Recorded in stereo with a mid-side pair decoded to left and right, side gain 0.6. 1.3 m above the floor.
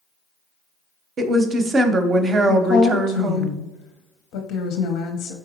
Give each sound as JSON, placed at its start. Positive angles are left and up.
{"t": 1.2, "sound": "a woman speaking", "azimuth_deg": -35, "distance_m": 0.6}
{"t": 2.5, "sound": "a woman speaking", "azimuth_deg": 70, "distance_m": 0.5}